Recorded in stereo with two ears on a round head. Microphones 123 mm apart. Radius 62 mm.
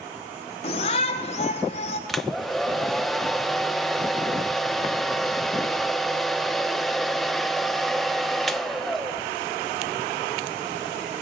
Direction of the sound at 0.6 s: 45° left (ahead or behind).